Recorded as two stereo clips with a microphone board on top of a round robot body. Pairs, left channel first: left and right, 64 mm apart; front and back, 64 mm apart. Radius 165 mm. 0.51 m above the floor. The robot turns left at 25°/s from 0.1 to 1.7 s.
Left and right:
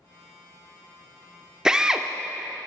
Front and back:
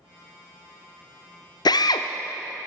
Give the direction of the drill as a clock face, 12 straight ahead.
12 o'clock.